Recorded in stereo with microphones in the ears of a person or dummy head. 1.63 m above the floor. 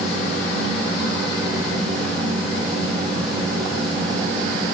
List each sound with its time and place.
0.0 s a fan: 5° left (ahead or behind), 3.5 m